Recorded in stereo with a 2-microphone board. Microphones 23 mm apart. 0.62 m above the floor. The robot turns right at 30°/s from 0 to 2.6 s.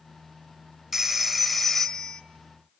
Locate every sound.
0.9 s a phone ringing: 15° right, 1.4 m; by 2.2 s 25° left, 1.4 m